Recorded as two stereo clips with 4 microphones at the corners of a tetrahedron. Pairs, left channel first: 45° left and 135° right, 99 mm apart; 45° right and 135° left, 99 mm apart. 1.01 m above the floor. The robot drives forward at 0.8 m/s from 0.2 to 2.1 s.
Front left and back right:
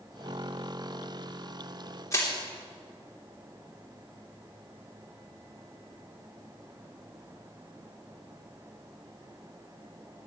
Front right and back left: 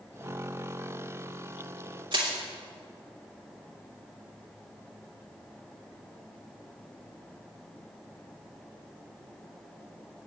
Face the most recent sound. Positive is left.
turn(degrees=105)